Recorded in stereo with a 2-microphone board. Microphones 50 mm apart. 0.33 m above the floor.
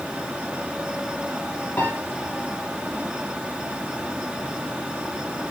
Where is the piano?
30° left (ahead or behind), 9.5 m.